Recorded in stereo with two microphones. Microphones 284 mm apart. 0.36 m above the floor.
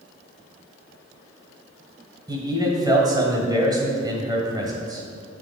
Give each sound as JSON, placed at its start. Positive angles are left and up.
{"t": 2.3, "sound": "a man speaking", "side_deg": -15, "distance_m": 1.5}